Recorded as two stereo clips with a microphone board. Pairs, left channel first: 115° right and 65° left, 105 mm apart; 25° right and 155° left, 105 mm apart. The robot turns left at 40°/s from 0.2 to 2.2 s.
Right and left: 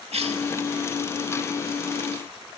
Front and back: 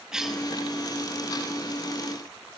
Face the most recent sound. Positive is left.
turn(degrees=-5)